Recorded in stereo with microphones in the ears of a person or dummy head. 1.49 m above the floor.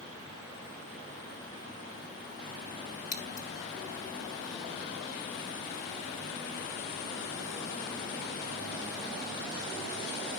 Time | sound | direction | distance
3.1 | scissors | 40° left (ahead or behind) | 2.0 m